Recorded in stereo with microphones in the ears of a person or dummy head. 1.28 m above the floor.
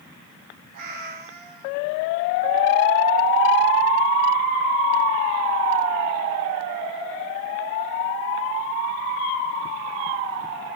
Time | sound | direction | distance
0.7 | a cat meowing | 55° right (ahead or behind) | 2.5 m